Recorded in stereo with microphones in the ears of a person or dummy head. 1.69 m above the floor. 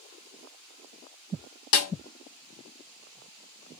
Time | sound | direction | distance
1.7 | a snare drum | 65° left (ahead or behind) | 0.9 m